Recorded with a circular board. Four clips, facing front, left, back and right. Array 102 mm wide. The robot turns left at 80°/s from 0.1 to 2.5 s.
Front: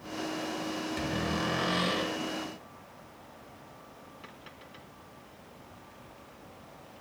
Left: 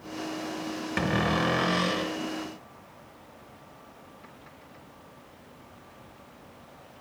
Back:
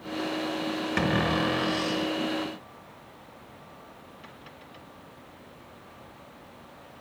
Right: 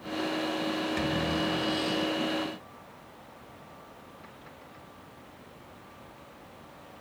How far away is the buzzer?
I don't hear a buzzer.